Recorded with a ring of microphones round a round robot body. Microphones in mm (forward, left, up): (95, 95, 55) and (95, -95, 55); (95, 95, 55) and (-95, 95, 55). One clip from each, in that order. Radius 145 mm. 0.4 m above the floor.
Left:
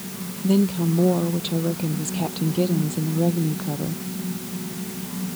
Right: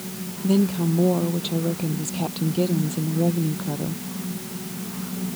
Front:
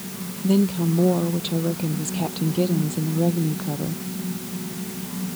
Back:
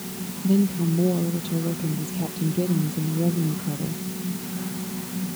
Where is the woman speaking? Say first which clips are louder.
Left 1 dB, front 2 dB; straight ahead.